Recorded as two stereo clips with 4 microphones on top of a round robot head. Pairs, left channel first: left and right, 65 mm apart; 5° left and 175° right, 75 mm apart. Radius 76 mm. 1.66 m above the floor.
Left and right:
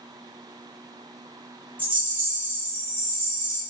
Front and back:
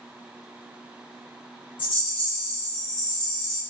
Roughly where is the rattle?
Ahead right.